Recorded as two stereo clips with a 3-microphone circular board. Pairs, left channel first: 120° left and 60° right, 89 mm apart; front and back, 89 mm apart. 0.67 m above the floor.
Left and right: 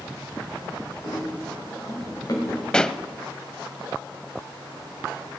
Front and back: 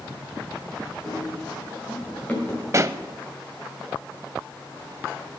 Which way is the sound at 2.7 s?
165° right.